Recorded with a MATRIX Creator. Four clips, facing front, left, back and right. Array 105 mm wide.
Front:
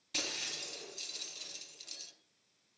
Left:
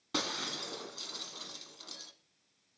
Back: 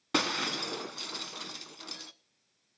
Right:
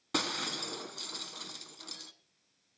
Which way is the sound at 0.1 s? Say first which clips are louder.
Right 2 dB, back 14 dB; 170° right.